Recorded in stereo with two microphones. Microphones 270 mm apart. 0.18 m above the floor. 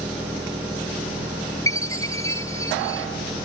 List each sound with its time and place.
0.0 s an engine running: 5° right (ahead or behind)
1.7 s a chime: 10° left (ahead or behind)